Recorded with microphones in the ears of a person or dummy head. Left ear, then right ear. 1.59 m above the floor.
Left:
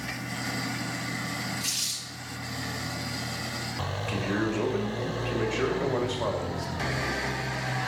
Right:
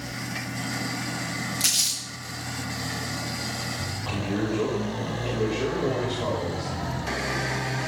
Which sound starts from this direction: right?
Crumpling, at 1.6 s.